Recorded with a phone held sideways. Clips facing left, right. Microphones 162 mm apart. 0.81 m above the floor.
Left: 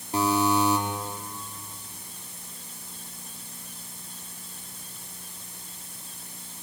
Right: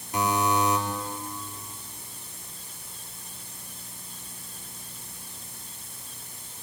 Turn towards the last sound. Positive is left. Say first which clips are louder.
# left 2 dB
turn(degrees=35)  # may be behind; listen again after turning